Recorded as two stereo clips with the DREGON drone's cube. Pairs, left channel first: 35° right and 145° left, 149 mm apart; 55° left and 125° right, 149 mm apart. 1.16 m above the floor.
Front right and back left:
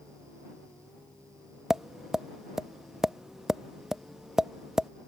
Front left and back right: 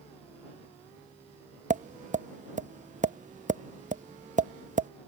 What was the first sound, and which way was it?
Tapping, 125° right.